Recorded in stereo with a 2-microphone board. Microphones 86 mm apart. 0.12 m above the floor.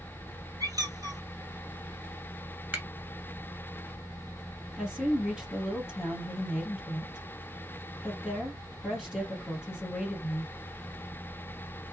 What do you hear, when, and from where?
0.6 s a squeak: 45° right (ahead or behind), 0.9 m
2.7 s a finger snap: 15° right (ahead or behind), 1.1 m
4.8 s a woman speaking: 5° right (ahead or behind), 2.0 m